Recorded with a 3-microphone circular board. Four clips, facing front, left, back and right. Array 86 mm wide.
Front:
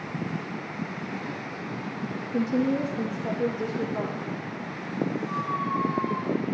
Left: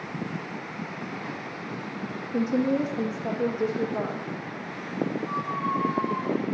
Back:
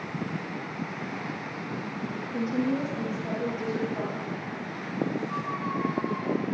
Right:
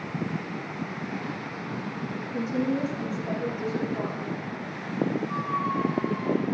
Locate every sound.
2.3 s a woman speaking: 70° left, 5.5 m; by 4.3 s 75° left, 6.5 m
5.3 s a squeak: 65° left, 3.5 m